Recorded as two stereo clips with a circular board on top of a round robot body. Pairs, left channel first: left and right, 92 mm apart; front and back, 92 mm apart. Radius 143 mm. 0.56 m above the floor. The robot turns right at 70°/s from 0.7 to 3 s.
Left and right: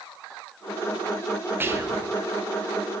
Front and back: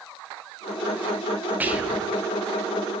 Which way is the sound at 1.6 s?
130° right.